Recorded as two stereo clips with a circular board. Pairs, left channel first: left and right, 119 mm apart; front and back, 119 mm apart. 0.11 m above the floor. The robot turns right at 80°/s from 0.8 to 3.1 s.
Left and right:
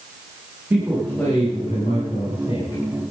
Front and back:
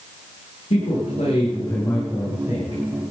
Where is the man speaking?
20° right, 8 m; by 2.8 s 145° left, 8 m.